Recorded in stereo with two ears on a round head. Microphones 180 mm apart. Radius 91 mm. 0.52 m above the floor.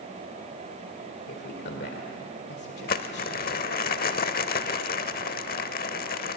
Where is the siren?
No siren in this recording.